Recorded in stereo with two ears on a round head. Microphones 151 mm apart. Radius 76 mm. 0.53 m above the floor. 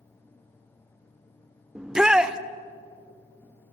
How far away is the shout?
About 1.1 m.